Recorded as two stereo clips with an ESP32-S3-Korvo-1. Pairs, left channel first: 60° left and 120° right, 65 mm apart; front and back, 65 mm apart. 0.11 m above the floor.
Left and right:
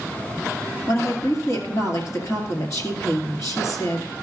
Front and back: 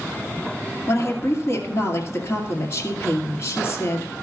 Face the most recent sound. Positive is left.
turn(degrees=40)